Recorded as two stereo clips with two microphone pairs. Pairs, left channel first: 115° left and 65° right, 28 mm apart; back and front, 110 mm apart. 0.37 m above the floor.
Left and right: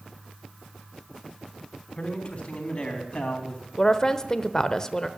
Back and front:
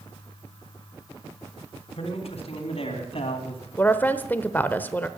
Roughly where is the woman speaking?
Behind left.